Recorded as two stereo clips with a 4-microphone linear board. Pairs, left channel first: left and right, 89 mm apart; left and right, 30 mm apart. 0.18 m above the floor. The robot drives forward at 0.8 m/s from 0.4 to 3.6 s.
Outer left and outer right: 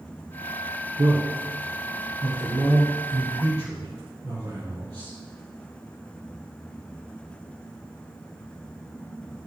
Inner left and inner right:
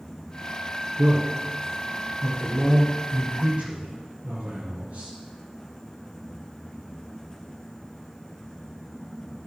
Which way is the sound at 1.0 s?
55° right (ahead or behind).